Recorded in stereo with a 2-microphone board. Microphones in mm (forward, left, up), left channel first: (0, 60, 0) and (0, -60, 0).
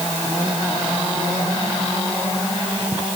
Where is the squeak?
I don't hear a squeak.